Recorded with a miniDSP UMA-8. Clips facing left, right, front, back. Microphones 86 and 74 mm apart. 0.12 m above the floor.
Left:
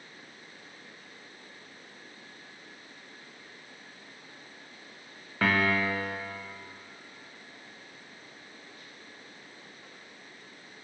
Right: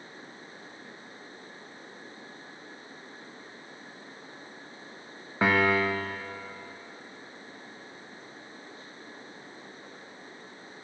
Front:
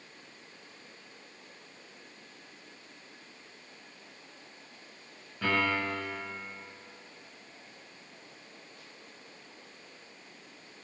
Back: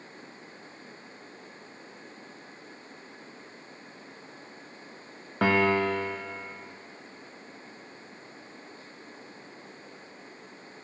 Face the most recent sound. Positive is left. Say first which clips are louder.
# right 3 dB, back 6 dB
turn(degrees=-160)